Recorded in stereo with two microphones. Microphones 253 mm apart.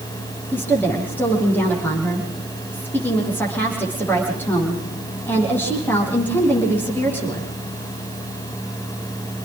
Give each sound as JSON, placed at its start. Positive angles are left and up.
{"t": 0.5, "sound": "a woman speaking", "side_deg": 5, "distance_m": 9.5}